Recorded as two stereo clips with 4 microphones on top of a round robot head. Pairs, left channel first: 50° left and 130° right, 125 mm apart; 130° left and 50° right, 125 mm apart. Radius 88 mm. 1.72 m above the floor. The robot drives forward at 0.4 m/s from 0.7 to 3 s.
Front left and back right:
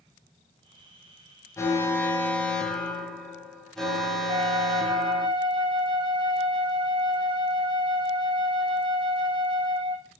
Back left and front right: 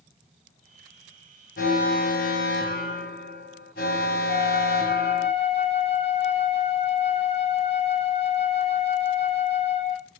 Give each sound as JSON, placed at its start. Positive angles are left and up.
{"t": 1.6, "sound": "an alarm", "azimuth_deg": 120, "distance_m": 1.4}
{"t": 4.3, "sound": "a flute", "azimuth_deg": 175, "distance_m": 1.8}